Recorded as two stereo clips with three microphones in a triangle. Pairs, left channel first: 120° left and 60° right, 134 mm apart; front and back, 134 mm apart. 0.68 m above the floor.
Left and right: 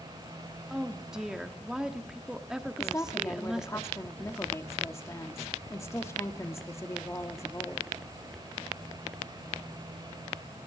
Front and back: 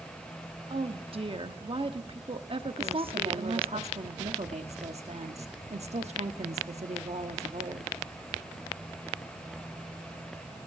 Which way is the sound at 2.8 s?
Straight behind.